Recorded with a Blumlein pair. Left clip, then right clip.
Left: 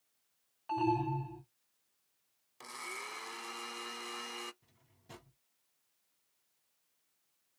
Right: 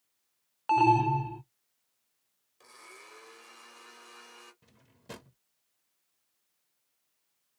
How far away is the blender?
About 0.8 m.